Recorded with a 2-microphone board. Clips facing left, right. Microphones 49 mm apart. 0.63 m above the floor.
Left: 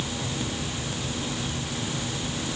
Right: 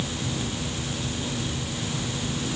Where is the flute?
No flute in this recording.